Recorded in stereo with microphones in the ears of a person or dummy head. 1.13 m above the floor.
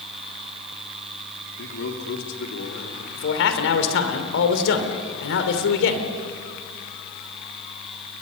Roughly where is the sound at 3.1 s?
Left.